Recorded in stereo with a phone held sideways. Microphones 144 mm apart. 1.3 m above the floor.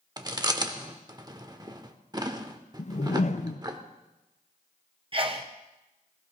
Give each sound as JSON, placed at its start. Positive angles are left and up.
{"t": 0.2, "sound": "chewing", "side_deg": -30, "distance_m": 1.0}
{"t": 2.8, "sound": "a whoosh", "side_deg": 55, "distance_m": 0.6}
{"t": 5.1, "sound": "a sneeze", "side_deg": -40, "distance_m": 0.8}